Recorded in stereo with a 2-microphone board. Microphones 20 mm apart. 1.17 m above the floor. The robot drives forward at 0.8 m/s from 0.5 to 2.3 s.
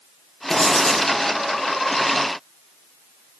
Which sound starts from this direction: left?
Writing, at 0.5 s.